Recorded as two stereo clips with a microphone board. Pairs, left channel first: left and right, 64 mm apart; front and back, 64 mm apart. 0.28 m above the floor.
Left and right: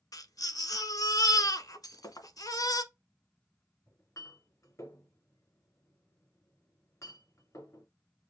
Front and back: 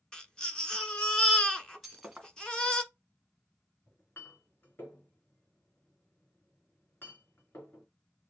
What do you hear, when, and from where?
0.1 s a baby crying: 75° left, 1.2 m
1.8 s breaking glass: 90° left, 1.8 m
3.9 s a clink: 55° left, 2.5 m